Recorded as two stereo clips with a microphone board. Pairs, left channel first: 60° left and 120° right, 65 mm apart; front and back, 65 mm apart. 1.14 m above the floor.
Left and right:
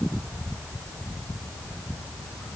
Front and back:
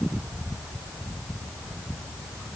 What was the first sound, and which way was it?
Only background noise.